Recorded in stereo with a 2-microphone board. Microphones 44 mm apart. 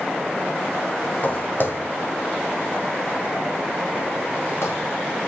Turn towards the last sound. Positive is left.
turn(degrees=70)  # may be behind; listen again after turning